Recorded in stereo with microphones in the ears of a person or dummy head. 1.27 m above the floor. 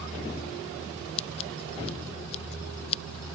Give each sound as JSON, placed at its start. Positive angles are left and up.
{"t": 1.2, "sound": "scissors", "side_deg": 35}